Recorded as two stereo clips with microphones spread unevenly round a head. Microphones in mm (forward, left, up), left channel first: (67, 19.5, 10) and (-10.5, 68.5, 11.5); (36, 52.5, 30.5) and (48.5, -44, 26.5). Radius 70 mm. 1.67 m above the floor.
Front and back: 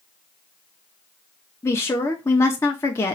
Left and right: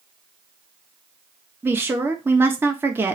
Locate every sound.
1.6 s a woman speaking: 35° right, 0.5 m